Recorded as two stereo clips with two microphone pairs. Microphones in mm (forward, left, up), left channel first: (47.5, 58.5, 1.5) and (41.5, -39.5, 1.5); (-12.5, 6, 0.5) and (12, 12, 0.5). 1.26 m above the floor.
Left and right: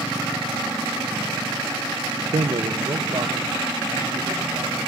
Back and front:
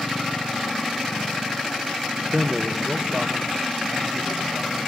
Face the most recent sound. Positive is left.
turn(degrees=-55)